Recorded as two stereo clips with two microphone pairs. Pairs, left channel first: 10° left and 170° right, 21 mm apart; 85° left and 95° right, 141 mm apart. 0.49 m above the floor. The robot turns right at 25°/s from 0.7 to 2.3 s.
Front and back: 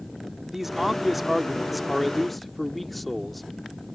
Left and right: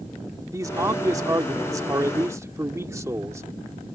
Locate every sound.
0.5 s a man speaking: 110° right; by 4.0 s 70° right